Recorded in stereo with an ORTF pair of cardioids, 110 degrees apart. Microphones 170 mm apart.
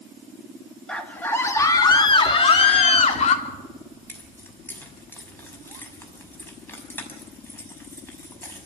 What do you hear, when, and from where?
0.9 s a scream: 5° left, 2 m; by 3.4 s 45° left, 3 m
3.5 s keys jangling: 15° left, 5.5 m